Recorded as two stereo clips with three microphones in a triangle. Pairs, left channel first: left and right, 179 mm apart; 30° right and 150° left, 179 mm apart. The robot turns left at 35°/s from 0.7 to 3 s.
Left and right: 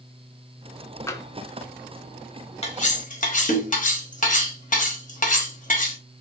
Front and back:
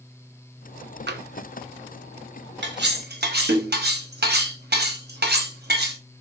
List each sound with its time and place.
1.1 s tapping: 165° left, 0.5 m; by 1.2 s 160° left, 0.5 m
2.6 s cutlery clinking: 145° left, 0.8 m; by 6.0 s 130° left, 0.8 m